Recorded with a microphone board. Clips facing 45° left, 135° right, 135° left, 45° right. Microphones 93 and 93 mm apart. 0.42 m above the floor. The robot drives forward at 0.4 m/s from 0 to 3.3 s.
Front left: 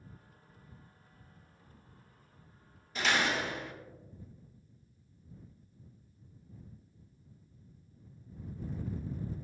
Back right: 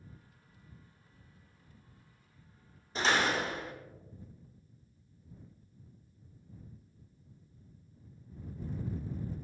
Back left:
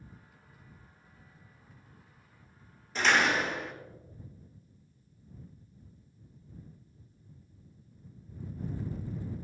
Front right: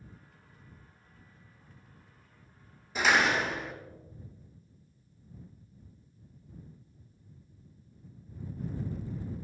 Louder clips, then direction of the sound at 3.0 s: Back right 2 dB, even; 120° right.